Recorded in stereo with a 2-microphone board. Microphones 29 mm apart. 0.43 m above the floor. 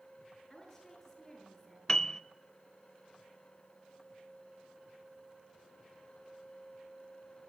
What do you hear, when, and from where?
0.5 s a woman speaking: 15° left (ahead or behind), 8 m
1.9 s a piano: 20° left (ahead or behind), 0.6 m